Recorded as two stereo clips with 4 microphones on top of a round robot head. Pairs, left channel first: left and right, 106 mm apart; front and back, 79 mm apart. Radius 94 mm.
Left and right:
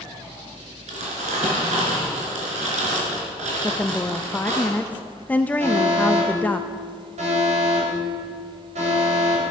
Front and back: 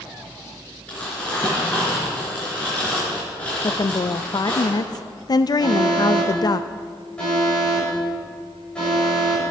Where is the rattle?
I don't hear a rattle.